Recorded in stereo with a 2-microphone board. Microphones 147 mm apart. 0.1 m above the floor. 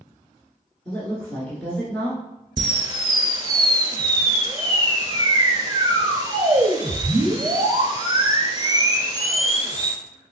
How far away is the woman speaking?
About 1.1 m.